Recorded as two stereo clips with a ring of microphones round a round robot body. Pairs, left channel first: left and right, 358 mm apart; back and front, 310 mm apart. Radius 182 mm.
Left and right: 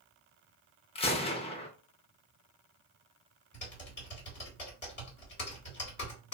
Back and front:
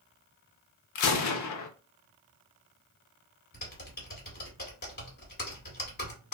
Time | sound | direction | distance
0.9 | a gunshot | 160° left | 0.6 m
3.5 | typing on a keyboard | 140° left | 1.8 m